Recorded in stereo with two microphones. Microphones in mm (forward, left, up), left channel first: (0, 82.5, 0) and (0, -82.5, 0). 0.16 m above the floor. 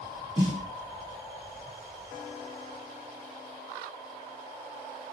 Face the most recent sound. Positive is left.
turn(degrees=5)  # may be behind; listen again after turning